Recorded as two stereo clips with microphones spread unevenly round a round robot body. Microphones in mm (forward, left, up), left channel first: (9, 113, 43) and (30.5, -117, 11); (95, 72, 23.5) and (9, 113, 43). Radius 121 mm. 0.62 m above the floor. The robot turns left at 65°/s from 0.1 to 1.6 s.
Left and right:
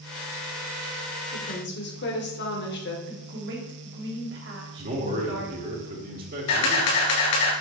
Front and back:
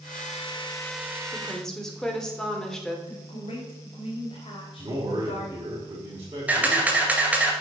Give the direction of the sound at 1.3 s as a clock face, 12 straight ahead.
10 o'clock.